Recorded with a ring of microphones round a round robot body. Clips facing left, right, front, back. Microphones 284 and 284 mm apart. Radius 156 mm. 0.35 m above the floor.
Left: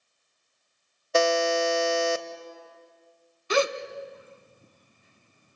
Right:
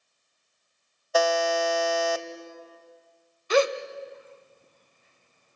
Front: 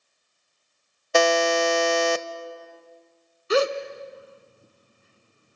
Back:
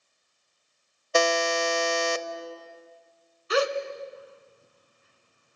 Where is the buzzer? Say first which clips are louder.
Left 2 dB, front 4 dB; 25° left, 0.8 m.